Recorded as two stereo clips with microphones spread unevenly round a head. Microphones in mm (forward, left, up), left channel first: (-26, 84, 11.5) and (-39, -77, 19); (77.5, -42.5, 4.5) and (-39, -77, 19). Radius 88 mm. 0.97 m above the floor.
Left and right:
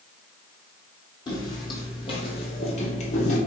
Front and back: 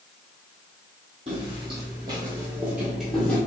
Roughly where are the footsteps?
Behind left.